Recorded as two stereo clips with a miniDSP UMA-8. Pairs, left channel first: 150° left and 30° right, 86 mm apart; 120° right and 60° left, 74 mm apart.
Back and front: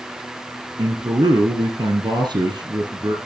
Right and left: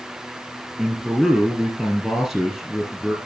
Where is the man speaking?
20° right, 2.5 m.